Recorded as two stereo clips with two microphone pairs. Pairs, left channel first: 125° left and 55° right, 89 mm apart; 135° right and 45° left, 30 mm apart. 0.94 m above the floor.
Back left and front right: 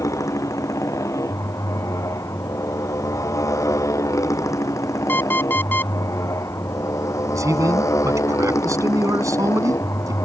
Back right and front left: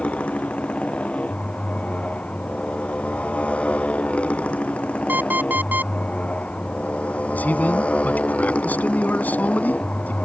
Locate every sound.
0.0 s a motorcycle: straight behind
5.1 s an alarm clock: 60° left
7.3 s a man speaking: 110° right